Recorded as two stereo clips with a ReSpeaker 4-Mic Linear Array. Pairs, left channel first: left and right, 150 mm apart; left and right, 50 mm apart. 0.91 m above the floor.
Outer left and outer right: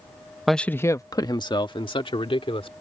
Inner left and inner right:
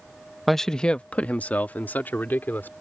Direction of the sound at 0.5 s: Centre (ahead or behind).